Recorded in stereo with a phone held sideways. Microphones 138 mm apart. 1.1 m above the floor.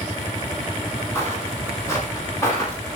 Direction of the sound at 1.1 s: 20° left (ahead or behind).